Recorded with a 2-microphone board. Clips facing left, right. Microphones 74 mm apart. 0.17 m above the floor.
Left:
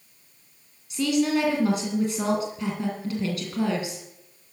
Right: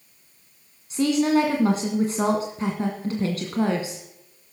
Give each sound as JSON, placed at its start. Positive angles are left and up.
{"t": 0.9, "sound": "a woman speaking", "side_deg": -40, "distance_m": 1.7}